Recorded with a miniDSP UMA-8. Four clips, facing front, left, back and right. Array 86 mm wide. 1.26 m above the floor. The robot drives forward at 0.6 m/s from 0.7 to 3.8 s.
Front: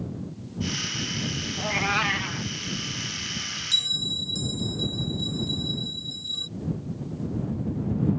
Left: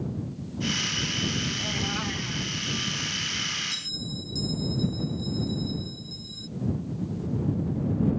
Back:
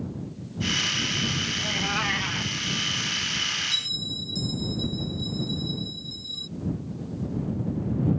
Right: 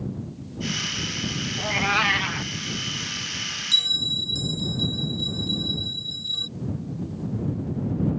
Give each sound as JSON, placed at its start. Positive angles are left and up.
{"t": 1.6, "sound": "a cat meowing", "azimuth_deg": -45}
{"t": 3.7, "sound": "a bell", "azimuth_deg": -70}